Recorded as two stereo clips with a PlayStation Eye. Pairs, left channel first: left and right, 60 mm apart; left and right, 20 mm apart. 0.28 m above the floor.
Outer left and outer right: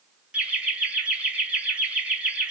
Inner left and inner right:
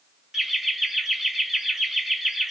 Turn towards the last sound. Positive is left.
turn(degrees=-20)  # may be behind; listen again after turning